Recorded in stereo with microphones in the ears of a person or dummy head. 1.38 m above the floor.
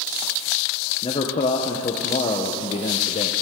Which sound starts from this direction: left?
A man speaking, at 1.0 s.